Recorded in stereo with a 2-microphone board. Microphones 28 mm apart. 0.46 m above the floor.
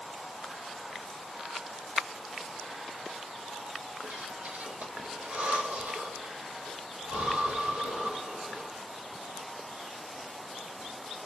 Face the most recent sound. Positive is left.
turn(degrees=-75)  # may be behind; listen again after turning